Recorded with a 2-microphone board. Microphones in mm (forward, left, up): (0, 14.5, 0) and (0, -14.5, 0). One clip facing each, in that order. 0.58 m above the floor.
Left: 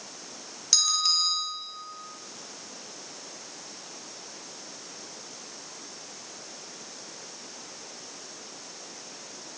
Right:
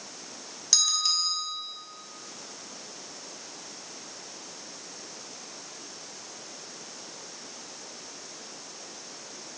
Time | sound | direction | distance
0.7 | a bell | 5° left (ahead or behind) | 1.3 m